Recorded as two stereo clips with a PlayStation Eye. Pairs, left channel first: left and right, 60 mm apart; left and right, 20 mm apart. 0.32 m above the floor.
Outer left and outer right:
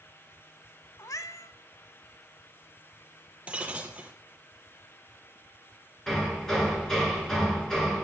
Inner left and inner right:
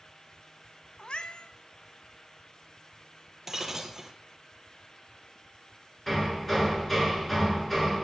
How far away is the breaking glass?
About 1.7 m.